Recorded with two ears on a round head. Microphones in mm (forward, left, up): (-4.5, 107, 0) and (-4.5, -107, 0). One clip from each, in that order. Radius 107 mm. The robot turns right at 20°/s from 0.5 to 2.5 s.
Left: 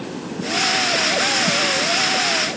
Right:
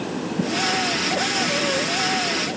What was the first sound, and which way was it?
Only background noise.